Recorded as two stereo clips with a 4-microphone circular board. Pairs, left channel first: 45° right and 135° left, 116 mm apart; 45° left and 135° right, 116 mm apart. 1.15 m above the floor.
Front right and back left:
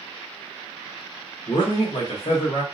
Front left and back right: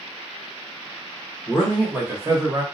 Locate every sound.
1.5 s a man speaking: 40° right, 0.9 m; by 2.6 s 85° right, 1.2 m